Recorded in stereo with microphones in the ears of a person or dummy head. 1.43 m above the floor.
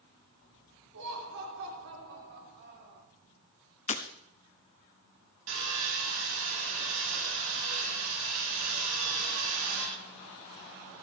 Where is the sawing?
75° right (ahead or behind), 6.5 m.